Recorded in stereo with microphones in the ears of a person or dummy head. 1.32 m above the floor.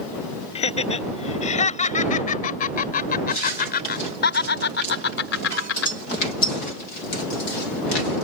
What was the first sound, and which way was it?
Laughter, 40° left (ahead or behind).